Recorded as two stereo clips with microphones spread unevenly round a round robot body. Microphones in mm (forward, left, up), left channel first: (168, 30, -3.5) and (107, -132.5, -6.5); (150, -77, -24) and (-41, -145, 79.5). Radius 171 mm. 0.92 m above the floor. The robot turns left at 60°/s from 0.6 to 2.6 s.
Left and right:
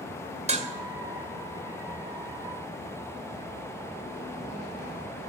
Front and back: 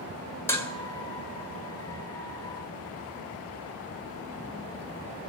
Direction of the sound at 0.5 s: 60° right.